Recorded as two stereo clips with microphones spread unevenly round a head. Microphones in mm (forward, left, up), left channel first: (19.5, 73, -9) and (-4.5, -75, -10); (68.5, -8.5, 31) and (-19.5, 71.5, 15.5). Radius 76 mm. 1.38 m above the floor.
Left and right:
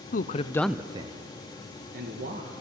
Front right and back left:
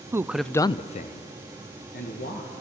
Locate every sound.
0.1 s a man speaking: 85° left, 0.7 m; by 2.5 s 65° right, 2 m